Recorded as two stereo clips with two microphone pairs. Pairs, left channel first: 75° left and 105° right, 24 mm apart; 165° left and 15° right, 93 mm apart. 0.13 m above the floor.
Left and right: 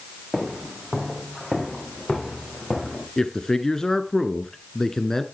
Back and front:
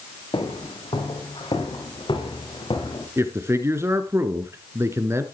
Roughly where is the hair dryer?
No hair dryer in this recording.